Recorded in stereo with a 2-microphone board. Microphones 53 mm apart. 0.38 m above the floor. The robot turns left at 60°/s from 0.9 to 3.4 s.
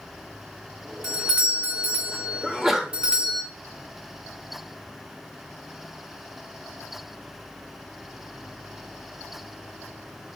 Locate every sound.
1.0 s a doorbell: 5° right (ahead or behind), 1.3 m; by 3.4 s 10° right (ahead or behind), 1.3 m
2.4 s a sneeze: centre (ahead or behind), 0.9 m; by 2.9 s 10° right (ahead or behind), 0.9 m